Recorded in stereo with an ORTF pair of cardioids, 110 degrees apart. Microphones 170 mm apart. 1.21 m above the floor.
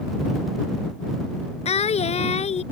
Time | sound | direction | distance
1.6 | singing | 40° left | ?